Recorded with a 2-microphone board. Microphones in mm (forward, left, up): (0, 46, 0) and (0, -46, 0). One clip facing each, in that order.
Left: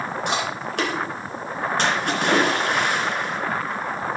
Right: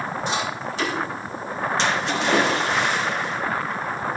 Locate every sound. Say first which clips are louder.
0.3 s chewing: left 1 dB; 70° left (ahead or behind), 3 m
1.8 s a splash: left 1 dB; 55° left (ahead or behind), 2.5 m